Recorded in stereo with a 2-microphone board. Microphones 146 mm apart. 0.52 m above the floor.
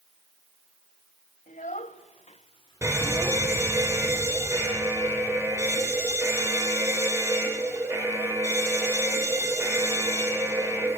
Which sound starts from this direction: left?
A child speaking, at 1.5 s.